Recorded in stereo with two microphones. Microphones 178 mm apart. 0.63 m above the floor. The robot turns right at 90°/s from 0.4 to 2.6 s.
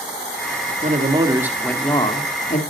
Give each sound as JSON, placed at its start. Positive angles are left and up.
{"t": 0.8, "sound": "a man speaking", "azimuth_deg": -70, "distance_m": 1.8}